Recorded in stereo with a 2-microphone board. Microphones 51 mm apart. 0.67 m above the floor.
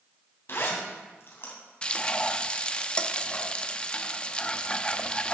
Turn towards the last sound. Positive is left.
turn(degrees=20)  # may be behind; listen again after turning